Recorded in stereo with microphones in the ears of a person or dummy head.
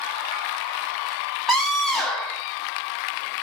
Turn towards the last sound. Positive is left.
turn(degrees=-5)  # may be behind; listen again after turning